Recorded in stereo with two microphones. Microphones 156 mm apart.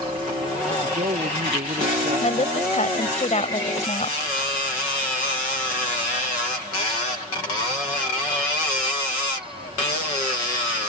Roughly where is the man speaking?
Right.